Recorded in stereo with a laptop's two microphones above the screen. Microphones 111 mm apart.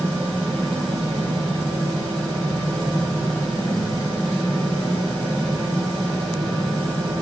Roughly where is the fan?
Right.